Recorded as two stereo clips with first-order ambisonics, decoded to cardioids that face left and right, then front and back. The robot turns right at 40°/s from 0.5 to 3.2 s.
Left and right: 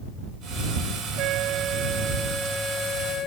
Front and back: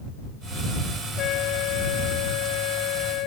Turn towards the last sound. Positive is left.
turn(degrees=30)